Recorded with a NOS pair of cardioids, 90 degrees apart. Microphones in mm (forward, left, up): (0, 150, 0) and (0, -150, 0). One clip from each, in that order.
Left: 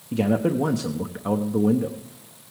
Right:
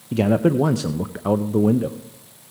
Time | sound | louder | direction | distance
0.1 | a man speaking | right 4 dB | 20° right | 0.5 m